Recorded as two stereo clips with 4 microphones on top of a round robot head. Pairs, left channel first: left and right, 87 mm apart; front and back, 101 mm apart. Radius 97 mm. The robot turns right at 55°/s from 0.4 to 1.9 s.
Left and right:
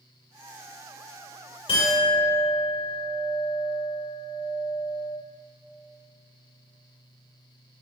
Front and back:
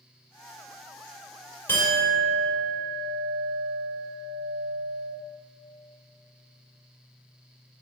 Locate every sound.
1.7 s a clink: 65° left, 2.5 m; by 5.1 s 80° left, 2.5 m